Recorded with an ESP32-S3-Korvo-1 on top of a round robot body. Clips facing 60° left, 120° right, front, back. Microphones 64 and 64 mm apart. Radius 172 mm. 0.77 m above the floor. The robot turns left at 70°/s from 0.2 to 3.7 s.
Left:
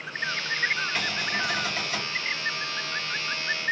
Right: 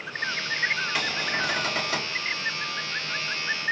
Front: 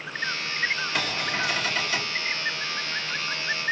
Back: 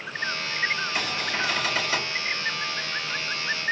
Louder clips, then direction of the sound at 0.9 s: Right 1 dB, even; 40° right.